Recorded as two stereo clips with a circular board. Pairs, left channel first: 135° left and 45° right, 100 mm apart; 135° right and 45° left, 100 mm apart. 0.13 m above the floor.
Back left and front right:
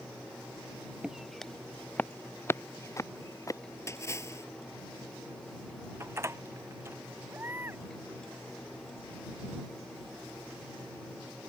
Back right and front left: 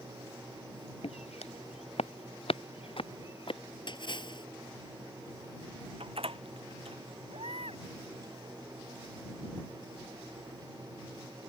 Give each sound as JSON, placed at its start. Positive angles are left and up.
{"t": 1.0, "sound": "footsteps", "azimuth_deg": -125}
{"t": 3.9, "sound": "a splash", "azimuth_deg": -165}
{"t": 6.0, "sound": "a door slam", "azimuth_deg": 20}
{"t": 7.3, "sound": "a baby crying", "azimuth_deg": 25}